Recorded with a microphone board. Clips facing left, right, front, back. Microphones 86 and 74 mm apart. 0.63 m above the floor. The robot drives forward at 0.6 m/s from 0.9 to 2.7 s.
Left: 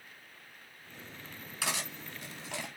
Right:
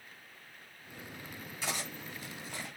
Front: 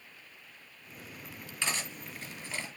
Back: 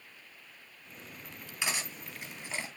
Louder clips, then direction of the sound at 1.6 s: Left 2 dB, even; 105° left.